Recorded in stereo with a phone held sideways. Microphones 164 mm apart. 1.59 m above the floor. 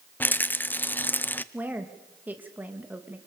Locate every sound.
0.2 s a rattle: 10° left (ahead or behind), 0.6 m
1.5 s a woman speaking: 10° right (ahead or behind), 2 m